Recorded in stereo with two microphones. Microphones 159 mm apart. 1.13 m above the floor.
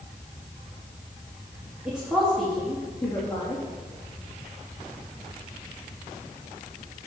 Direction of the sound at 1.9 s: 5° right (ahead or behind).